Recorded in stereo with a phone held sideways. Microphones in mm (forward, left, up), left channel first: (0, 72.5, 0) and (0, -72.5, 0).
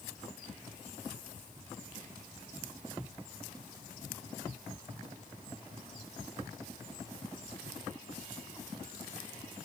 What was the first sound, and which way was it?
Only background noise.